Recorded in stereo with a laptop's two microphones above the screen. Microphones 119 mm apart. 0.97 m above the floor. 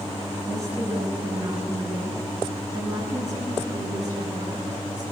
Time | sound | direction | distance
0.5 | a woman speaking | 25° right (ahead or behind) | 8.5 m